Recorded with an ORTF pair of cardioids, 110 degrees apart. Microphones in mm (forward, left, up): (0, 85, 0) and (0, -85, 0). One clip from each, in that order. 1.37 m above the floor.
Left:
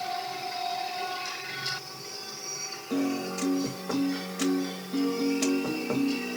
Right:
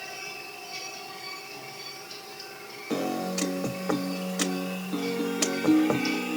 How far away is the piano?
About 0.9 m.